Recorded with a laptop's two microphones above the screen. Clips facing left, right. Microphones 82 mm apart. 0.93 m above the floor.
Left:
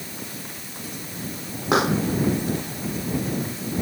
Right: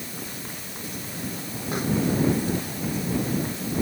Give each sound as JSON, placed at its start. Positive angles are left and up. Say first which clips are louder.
{"t": 1.7, "sound": "a pop", "louder": "left 6 dB", "side_deg": 75}